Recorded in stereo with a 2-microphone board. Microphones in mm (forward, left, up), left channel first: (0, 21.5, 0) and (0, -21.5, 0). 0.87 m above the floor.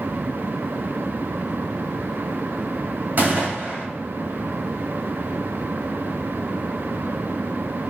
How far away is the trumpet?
I don't hear a trumpet.